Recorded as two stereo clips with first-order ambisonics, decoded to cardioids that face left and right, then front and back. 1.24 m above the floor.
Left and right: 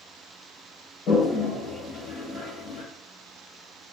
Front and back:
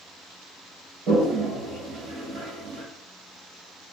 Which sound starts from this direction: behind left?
A toilet flushing, at 1.1 s.